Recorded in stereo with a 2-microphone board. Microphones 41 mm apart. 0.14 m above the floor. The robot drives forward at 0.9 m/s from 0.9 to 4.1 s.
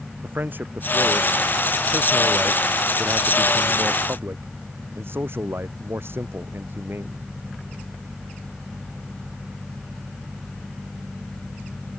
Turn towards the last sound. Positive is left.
turn(degrees=-65)  # may be behind; listen again after turning